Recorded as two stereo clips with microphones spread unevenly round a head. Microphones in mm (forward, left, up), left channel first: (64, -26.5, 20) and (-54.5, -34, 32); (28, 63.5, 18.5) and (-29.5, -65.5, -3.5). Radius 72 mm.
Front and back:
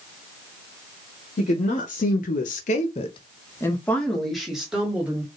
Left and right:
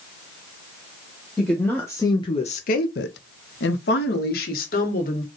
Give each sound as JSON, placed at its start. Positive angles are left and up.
{"t": 1.4, "sound": "a woman speaking", "azimuth_deg": -20, "distance_m": 1.0}